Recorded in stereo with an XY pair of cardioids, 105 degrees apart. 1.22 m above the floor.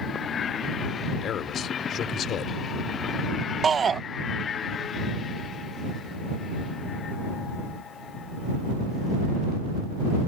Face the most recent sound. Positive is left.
turn(degrees=-40)